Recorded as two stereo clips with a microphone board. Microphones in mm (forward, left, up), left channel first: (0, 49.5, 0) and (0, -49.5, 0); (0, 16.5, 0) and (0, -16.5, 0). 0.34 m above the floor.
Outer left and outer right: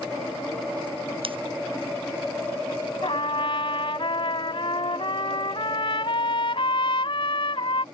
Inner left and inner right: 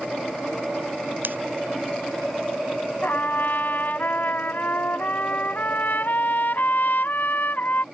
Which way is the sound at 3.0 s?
60° left (ahead or behind).